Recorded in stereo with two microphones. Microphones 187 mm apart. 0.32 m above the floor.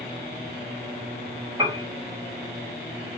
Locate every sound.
1.6 s a piano: 25° right (ahead or behind), 1.5 m